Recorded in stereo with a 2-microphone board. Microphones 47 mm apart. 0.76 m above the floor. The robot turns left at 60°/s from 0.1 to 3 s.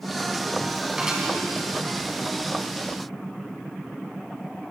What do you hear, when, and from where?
1.0 s dishes clattering: 20° right (ahead or behind), 5 m; by 1.2 s 5° right (ahead or behind), 5 m